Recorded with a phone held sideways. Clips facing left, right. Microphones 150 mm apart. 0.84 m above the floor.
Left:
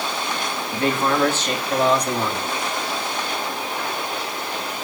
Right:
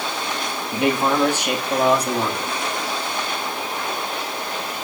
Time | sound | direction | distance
0.7 | a man speaking | 20° right (ahead or behind) | 1.3 m